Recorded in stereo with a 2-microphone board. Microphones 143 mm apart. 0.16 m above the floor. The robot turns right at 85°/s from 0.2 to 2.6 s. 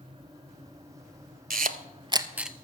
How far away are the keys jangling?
I don't hear keys jangling.